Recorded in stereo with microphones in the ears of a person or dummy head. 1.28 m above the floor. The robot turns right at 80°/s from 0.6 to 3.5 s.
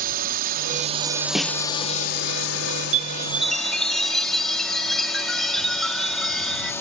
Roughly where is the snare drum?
Centre.